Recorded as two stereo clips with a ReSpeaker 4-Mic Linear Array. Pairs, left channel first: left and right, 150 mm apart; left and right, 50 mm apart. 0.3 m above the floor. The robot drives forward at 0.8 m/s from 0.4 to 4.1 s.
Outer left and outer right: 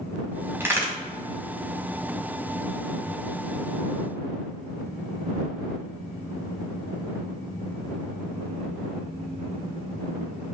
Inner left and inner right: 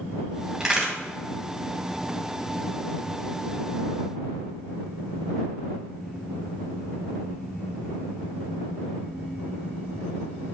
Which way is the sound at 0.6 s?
15° right (ahead or behind).